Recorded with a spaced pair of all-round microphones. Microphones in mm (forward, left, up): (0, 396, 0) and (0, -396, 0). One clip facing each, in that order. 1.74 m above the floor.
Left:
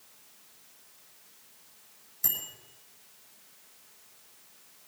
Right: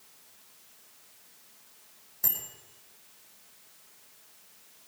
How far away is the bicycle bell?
About 5 m.